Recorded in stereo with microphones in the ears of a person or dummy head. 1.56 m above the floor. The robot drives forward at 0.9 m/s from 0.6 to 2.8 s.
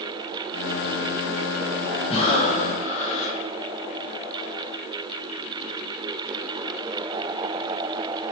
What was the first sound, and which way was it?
Breathing, 35° left (ahead or behind).